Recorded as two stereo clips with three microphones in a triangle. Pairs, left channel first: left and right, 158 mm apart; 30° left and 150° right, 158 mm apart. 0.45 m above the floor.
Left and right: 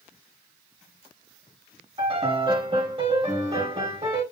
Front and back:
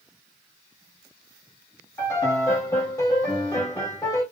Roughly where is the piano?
Ahead right.